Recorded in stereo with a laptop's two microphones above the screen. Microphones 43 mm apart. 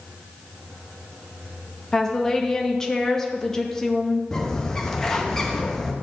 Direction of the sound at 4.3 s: 15° left (ahead or behind).